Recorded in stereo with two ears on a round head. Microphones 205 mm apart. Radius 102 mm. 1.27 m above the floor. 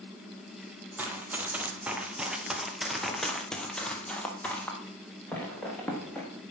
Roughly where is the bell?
No bell in this recording.